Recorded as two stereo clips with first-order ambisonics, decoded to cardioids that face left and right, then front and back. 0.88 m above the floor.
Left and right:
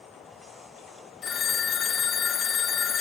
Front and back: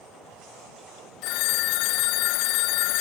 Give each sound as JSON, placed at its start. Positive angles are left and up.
{"t": 1.2, "sound": "a phone ringing", "azimuth_deg": 25, "distance_m": 0.6}